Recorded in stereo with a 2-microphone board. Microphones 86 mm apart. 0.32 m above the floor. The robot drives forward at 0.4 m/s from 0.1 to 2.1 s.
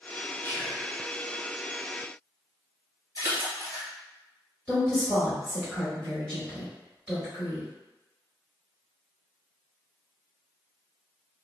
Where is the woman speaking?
Centre (ahead or behind), 1.3 m.